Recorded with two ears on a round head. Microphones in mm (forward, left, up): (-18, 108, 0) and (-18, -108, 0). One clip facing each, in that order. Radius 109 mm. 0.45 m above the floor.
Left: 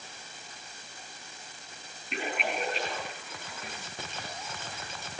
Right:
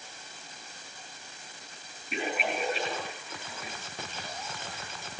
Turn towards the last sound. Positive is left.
turn(degrees=-5)  # may be behind; listen again after turning